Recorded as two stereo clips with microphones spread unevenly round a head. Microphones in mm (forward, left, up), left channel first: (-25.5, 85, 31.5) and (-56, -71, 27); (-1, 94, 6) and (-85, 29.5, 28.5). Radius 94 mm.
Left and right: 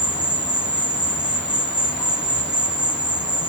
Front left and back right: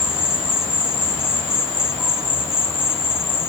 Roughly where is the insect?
Ahead left.